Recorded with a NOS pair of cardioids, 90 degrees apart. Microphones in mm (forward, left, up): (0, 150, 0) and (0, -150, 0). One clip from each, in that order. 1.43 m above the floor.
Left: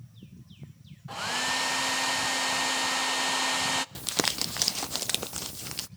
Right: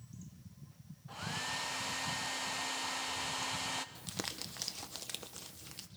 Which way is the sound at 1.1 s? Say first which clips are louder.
Left 10 dB; 50° left.